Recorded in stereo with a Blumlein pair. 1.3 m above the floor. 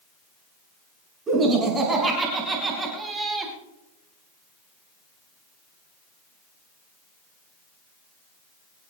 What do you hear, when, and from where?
1.3 s laughter: 20° right, 6 m; by 3.5 s 10° right, 4 m